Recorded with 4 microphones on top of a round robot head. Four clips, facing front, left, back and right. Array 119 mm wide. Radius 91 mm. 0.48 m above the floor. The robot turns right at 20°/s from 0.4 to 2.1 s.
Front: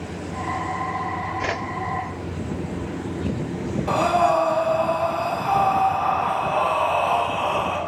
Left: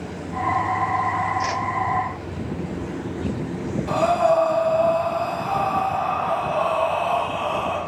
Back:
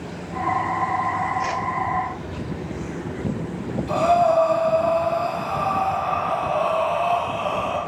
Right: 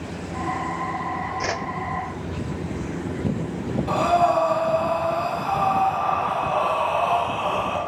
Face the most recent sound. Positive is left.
turn(degrees=5)